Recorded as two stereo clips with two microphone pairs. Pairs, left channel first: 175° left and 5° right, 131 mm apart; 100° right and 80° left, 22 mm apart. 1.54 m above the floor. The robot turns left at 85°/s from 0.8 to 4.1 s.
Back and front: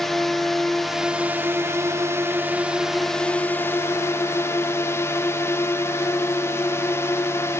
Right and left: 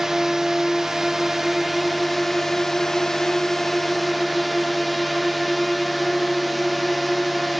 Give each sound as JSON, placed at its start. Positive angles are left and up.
{"t": 0.0, "sound": "a drone", "azimuth_deg": 90}